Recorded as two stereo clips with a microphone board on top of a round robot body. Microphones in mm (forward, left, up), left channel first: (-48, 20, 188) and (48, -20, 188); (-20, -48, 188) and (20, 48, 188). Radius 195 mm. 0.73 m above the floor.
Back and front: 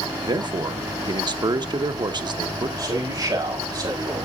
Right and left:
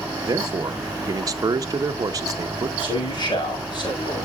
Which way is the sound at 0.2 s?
20° left.